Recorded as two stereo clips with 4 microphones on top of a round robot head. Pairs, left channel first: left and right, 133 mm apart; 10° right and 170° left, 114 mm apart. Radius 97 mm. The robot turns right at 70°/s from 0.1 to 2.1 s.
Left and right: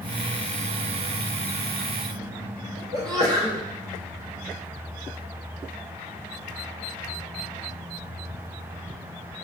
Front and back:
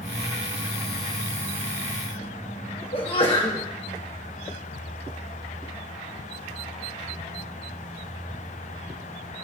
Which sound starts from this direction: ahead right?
A sneeze, at 2.9 s.